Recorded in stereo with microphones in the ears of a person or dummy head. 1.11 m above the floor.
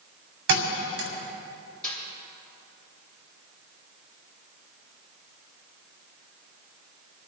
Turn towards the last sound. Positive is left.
turn(degrees=5)  # may be behind; listen again after turning